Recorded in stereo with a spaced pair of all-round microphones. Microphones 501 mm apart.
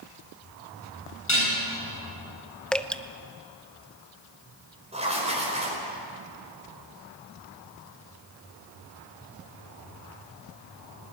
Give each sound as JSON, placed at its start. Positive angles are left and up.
{"t": 1.3, "sound": "dishes clattering", "side_deg": 75, "distance_m": 8.5}
{"t": 2.7, "sound": "dripping", "side_deg": 0, "distance_m": 0.6}
{"t": 4.9, "sound": "writing", "side_deg": -15, "distance_m": 5.0}